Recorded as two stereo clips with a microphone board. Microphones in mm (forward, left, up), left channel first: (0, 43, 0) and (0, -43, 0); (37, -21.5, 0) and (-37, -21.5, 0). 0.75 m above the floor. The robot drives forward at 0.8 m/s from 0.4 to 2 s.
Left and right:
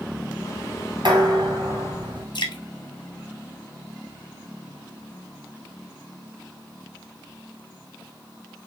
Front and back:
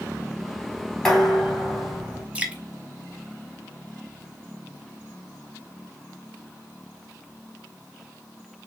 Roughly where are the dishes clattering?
Right.